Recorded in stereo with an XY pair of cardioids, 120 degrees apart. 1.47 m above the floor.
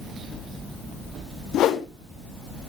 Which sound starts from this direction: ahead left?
A whoosh, at 1.5 s.